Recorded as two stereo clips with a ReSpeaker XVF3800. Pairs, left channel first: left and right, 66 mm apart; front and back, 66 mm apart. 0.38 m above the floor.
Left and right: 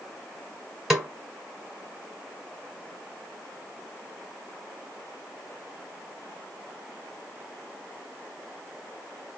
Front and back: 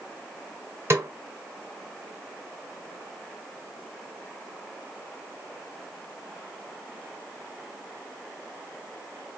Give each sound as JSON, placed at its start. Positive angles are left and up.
{"t": 0.9, "sound": "a snare drum", "azimuth_deg": -170, "distance_m": 1.2}